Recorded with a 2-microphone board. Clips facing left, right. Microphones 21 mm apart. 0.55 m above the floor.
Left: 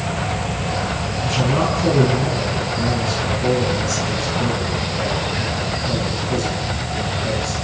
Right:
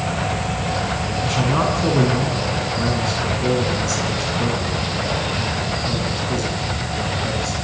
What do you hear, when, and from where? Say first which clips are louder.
1.2 s a man speaking: left 1 dB; 20° right (ahead or behind), 6.5 m